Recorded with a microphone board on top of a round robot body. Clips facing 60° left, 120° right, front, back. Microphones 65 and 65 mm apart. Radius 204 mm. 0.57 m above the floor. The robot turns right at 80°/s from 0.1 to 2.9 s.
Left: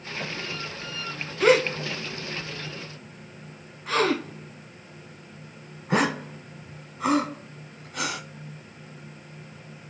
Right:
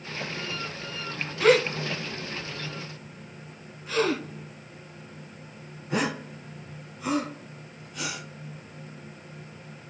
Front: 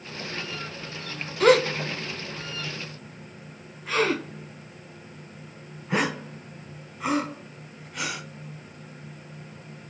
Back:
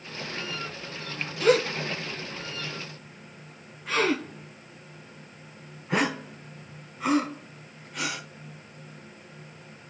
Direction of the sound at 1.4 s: 25° right.